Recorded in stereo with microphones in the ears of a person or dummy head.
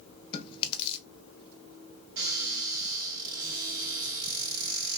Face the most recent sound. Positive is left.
turn(degrees=-65)  # may be behind; listen again after turning